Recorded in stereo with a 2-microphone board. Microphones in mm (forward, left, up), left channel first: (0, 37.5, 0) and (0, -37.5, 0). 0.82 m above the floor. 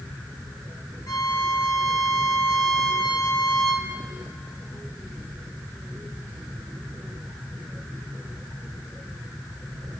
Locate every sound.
1.1 s a violin: 55° left (ahead or behind), 2.0 m